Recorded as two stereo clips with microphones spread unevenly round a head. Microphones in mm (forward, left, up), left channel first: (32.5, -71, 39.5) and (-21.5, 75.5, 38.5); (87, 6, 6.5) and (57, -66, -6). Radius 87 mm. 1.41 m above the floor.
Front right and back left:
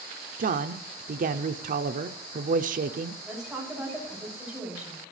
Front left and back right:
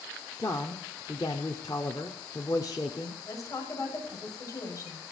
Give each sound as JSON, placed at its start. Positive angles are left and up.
{"t": 0.4, "sound": "a man speaking", "azimuth_deg": 130, "distance_m": 0.6}
{"t": 3.2, "sound": "a woman speaking", "azimuth_deg": 25, "distance_m": 7.0}